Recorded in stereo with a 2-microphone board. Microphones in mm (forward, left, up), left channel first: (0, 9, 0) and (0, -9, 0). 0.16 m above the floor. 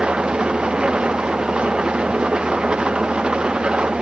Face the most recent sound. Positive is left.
turn(degrees=-60)  # may be behind; listen again after turning